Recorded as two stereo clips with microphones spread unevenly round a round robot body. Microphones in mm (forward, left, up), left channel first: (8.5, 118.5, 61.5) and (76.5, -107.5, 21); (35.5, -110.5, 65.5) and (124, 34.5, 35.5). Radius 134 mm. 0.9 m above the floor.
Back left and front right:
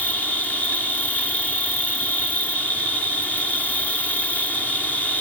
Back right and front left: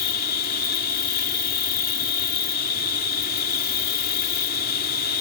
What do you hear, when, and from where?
0.0 s an insect: 165° right